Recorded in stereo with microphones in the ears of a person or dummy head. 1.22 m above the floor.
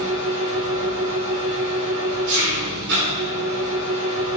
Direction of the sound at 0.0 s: 90° right.